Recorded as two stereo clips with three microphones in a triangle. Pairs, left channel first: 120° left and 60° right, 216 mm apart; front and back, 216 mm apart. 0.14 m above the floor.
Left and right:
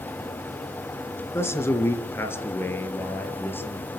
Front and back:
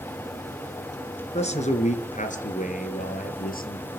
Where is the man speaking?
45° left, 2 m; by 4.0 s 40° left, 3.5 m.